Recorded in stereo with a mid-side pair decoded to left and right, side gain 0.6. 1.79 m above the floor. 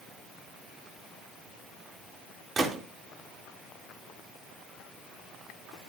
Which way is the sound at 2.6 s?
30° right.